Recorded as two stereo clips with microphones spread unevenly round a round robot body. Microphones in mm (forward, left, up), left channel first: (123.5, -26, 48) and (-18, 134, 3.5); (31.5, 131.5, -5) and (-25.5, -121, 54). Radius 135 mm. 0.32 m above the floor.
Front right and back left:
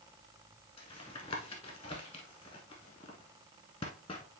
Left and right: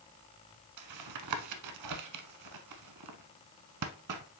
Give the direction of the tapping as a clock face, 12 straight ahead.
4 o'clock.